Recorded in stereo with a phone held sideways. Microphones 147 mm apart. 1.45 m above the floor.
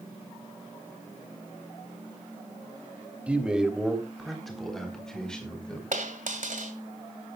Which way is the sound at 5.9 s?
65° right (ahead or behind).